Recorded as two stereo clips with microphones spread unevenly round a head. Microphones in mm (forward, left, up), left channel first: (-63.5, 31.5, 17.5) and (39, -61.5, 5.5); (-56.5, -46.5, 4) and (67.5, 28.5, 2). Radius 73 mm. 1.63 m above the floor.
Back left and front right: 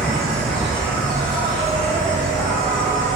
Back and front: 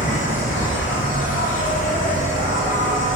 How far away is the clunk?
No clunk in this recording.